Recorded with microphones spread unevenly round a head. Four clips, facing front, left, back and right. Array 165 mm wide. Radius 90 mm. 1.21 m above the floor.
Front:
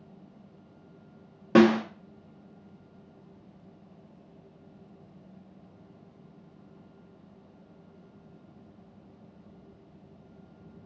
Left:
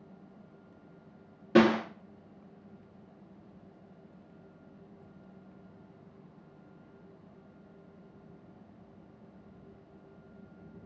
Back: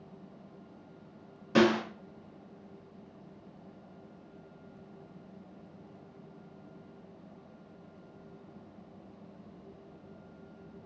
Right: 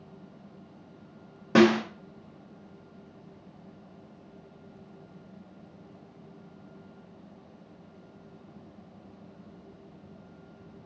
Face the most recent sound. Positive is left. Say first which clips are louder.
# right 3 dB, front 5 dB
turn(degrees=-25)